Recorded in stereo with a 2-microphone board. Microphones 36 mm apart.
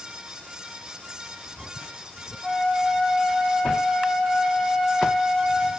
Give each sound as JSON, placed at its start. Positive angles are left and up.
{"t": 2.4, "sound": "a flute", "side_deg": 5, "distance_m": 0.5}